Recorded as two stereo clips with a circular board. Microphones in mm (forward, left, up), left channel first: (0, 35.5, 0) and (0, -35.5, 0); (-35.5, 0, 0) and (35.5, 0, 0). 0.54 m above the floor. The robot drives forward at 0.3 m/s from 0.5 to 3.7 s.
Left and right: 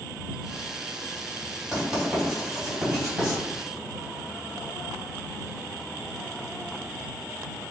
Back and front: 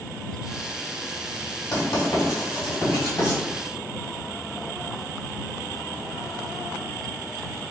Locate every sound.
1.7 s writing: 175° right, 1.9 m